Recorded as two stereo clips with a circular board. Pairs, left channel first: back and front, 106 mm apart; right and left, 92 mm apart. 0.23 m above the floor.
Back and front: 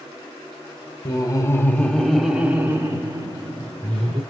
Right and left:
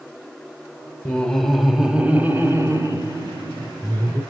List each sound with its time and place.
1.1 s laughter: 160° right, 1.5 m; by 4.2 s 45° left, 2.5 m